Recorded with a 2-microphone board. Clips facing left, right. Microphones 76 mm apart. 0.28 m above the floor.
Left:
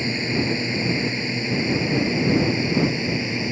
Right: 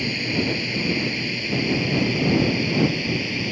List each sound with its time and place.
0.0 s a drone: 25° left (ahead or behind); by 3.5 s 20° left (ahead or behind)